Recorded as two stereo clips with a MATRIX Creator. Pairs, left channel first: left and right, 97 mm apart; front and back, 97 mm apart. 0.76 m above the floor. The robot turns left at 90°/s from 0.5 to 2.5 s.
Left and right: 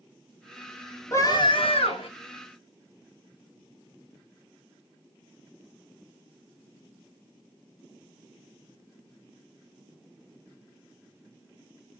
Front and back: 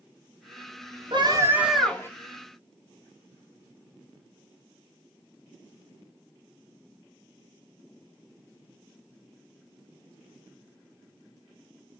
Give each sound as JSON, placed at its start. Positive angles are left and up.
{"t": 1.1, "sound": "a scream", "azimuth_deg": 150, "distance_m": 3.5}